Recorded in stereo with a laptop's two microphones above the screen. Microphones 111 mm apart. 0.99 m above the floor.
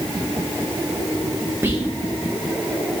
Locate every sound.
1.6 s whispering: 20° right (ahead or behind), 0.6 m